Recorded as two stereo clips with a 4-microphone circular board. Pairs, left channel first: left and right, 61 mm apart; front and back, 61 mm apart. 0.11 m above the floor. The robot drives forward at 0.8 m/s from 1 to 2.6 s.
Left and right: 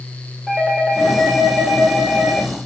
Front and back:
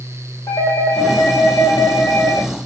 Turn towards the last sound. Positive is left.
turn(degrees=-20)